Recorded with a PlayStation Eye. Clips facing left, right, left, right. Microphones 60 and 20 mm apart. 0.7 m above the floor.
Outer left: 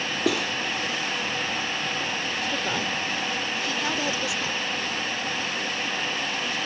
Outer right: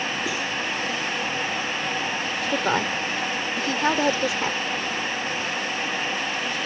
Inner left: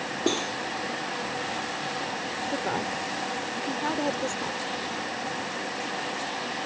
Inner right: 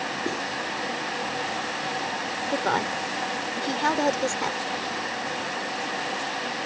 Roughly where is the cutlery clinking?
Left.